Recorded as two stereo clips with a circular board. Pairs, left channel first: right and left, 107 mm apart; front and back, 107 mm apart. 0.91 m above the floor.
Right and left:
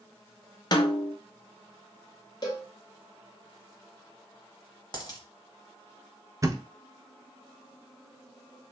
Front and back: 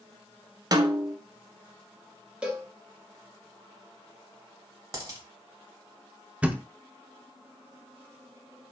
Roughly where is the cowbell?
Right.